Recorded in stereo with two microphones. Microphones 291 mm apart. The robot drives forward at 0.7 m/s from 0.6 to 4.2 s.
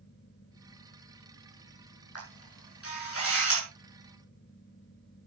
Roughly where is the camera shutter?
Left.